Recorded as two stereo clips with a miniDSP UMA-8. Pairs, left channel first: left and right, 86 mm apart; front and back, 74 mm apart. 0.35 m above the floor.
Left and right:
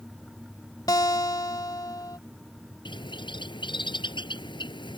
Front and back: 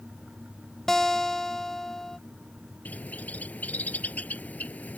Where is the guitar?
80° left.